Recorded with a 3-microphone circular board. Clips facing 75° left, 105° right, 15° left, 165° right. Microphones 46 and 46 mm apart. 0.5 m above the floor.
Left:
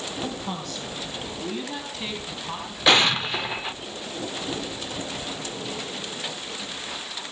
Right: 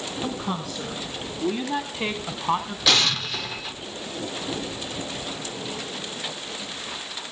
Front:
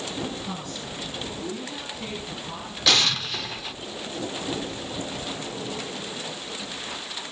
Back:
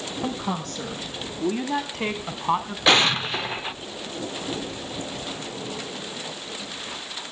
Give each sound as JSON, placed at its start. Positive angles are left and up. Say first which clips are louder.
{"t": 0.2, "sound": "a woman speaking", "louder": "right 2 dB, back 5 dB", "azimuth_deg": 165, "distance_m": 3.0}
{"t": 2.9, "sound": "an explosion", "louder": "left 4 dB, back 4 dB", "azimuth_deg": 135, "distance_m": 0.5}